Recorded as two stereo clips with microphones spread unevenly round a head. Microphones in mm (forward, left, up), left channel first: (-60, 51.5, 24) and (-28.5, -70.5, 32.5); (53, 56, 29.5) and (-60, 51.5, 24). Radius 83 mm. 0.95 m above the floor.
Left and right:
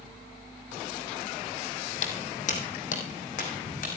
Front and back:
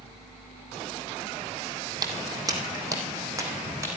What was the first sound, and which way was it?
Footsteps, 130° left.